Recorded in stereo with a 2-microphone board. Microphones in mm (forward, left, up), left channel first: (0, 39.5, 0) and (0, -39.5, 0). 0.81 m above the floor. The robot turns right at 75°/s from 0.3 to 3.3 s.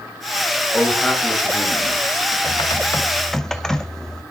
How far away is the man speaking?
About 5.5 m.